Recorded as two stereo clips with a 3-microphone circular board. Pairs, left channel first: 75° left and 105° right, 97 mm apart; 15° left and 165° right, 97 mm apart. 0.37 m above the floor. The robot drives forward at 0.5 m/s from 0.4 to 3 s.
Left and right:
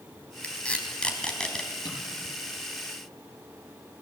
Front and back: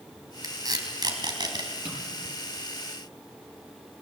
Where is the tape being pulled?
150° left, 3 m; by 1.7 s 155° left, 3.5 m.